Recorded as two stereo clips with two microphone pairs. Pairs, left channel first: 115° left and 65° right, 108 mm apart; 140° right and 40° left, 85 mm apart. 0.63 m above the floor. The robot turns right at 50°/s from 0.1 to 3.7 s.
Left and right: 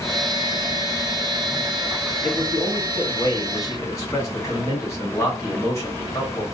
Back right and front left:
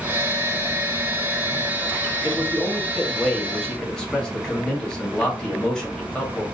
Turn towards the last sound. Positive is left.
turn(degrees=145)